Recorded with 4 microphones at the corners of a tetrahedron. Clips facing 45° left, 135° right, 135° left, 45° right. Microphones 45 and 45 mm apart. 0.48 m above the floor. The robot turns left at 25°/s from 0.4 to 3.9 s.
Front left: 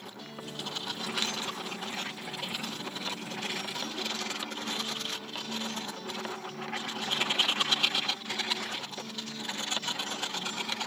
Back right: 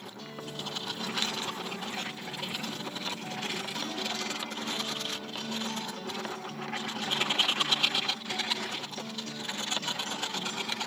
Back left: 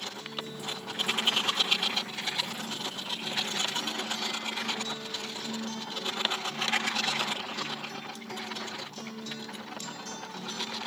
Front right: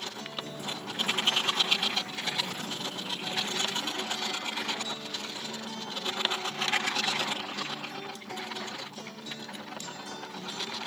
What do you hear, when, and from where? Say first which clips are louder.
0.2 s a guitar: back right 1 dB, even; 35° right, 2 m; by 10.8 s 120° right, 2 m